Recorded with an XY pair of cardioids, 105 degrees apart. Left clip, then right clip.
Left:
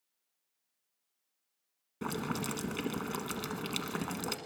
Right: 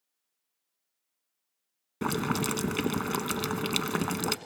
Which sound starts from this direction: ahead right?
Boiling, at 2.0 s.